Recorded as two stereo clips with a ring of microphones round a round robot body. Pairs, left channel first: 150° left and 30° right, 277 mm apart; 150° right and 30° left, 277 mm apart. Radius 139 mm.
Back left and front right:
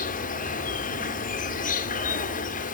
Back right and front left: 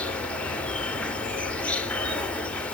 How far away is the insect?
About 0.7 m.